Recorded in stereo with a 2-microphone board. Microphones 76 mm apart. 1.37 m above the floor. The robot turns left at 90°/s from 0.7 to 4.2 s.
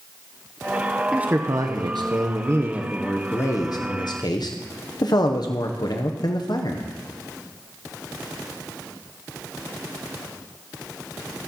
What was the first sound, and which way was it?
A man speaking, 10° right.